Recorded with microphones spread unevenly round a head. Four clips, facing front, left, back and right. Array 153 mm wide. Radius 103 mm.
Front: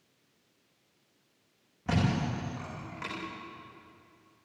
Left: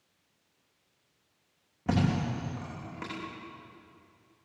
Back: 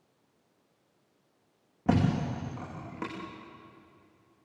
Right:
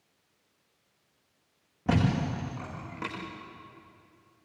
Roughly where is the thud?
Behind.